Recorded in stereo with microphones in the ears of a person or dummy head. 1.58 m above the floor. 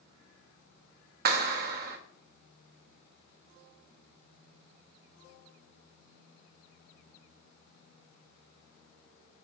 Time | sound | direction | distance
1.2 | a clap | 50° right (ahead or behind) | 0.7 m